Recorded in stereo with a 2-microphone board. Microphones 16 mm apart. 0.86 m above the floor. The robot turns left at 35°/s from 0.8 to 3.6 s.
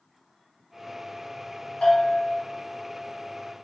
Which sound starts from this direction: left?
A bell, at 1.8 s.